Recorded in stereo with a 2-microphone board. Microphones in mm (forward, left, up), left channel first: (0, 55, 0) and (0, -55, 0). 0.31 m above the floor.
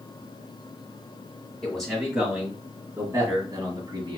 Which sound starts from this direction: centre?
A man speaking, at 1.6 s.